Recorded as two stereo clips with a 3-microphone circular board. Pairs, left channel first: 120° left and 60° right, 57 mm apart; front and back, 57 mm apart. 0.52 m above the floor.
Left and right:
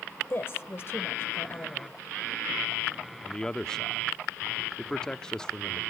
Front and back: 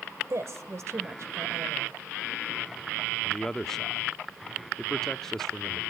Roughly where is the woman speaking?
Behind.